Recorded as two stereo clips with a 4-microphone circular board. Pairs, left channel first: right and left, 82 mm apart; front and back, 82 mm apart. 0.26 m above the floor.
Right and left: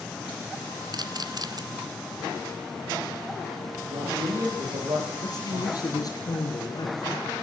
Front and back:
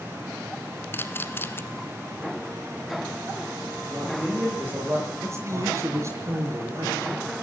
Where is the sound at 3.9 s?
115° left, 10 m.